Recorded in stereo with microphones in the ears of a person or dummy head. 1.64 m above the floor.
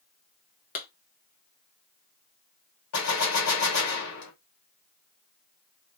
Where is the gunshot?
60° left (ahead or behind), 1.7 m.